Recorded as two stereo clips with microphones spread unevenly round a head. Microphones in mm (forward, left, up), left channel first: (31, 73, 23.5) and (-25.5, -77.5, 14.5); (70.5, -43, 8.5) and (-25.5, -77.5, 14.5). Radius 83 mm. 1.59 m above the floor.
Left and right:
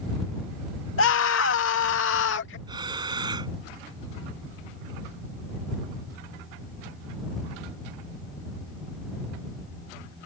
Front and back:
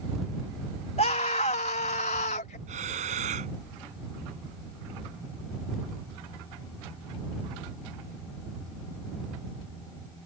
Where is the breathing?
175° right.